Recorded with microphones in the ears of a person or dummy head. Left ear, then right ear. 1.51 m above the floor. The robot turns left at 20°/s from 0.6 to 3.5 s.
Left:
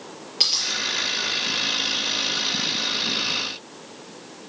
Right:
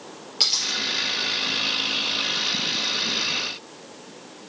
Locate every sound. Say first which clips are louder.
0.4 s a dropped coin: left 1 dB; 10° left (ahead or behind), 4 m; by 0.8 s 15° left (ahead or behind), 4 m